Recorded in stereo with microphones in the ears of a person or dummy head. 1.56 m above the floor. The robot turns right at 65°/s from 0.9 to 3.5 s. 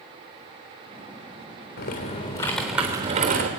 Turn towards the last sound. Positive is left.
turn(degrees=-125)